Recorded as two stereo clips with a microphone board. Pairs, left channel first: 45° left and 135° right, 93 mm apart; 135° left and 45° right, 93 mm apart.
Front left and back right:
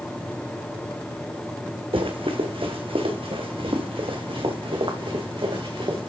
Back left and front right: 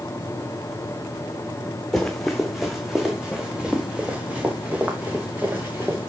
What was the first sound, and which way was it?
Running footsteps, 140° right.